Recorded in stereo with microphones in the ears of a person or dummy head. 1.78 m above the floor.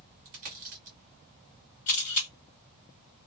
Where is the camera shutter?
35° left (ahead or behind), 1.9 m.